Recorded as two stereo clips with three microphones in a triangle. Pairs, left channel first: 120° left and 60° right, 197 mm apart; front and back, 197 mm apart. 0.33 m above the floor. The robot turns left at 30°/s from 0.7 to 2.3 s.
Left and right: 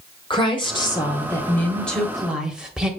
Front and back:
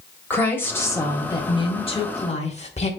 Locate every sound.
0.3 s a woman speaking: 70° left, 1.3 m; by 2.9 s 25° left, 1.3 m